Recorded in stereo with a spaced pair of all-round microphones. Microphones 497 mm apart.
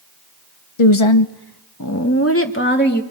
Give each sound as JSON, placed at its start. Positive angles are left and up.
{"t": 0.8, "sound": "a woman speaking", "side_deg": 75, "distance_m": 1.0}